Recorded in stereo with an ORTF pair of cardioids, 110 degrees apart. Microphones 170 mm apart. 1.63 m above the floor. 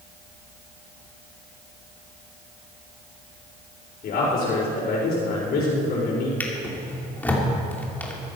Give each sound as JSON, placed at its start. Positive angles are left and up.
{"t": 4.0, "sound": "a man speaking", "azimuth_deg": 60, "distance_m": 5.5}
{"t": 6.4, "sound": "a drawer", "azimuth_deg": 10, "distance_m": 3.0}